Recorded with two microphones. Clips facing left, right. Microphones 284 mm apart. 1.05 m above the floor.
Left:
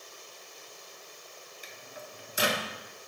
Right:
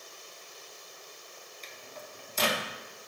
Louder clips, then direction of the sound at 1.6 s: Even; 10° left (ahead or behind).